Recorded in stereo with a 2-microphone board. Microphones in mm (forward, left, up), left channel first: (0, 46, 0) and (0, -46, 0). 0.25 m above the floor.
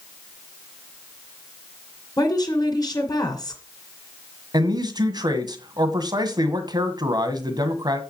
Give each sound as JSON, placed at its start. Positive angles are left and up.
{"t": 2.2, "sound": "a woman speaking", "side_deg": 40, "distance_m": 2.5}
{"t": 4.5, "sound": "a man speaking", "side_deg": -50, "distance_m": 1.8}